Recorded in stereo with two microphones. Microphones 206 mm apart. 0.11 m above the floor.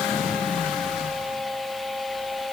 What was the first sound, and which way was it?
Only background noise.